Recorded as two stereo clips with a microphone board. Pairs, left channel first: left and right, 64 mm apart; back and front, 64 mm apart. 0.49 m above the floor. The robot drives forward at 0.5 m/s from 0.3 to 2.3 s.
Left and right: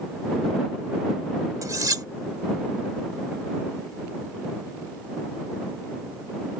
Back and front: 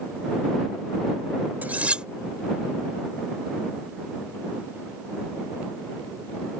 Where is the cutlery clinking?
60° right; by 2.1 s 75° right.